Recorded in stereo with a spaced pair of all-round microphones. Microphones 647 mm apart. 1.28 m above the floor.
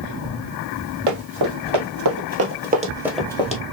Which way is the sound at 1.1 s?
50° right (ahead or behind).